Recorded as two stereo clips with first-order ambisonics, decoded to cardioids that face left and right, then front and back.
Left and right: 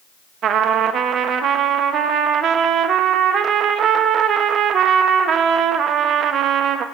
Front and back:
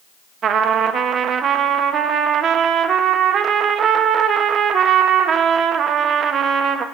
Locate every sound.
0.4 s a trumpet: 130° right, 0.6 m